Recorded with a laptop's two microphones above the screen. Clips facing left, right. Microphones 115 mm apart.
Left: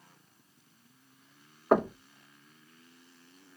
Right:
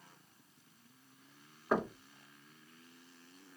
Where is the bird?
I don't hear a bird.